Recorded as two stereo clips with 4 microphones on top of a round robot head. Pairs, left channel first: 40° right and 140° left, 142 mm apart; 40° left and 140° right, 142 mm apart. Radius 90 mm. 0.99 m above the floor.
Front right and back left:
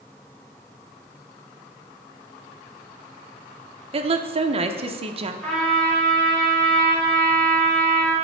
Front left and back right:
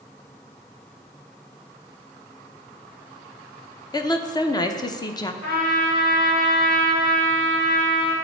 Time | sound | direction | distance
3.9 | a woman speaking | 100° left | 0.7 m
5.4 | a trumpet | 45° left | 2.5 m